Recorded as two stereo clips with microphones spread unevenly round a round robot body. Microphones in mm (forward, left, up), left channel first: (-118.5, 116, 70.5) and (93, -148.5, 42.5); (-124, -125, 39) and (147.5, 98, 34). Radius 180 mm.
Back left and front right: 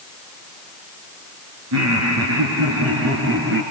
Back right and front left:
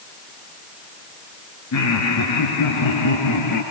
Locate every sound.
1.7 s laughter: 95° right, 5 m; by 3.6 s 105° right, 5.5 m